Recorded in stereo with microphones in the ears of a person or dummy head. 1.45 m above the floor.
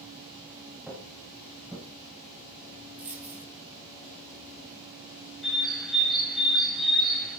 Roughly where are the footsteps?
Centre.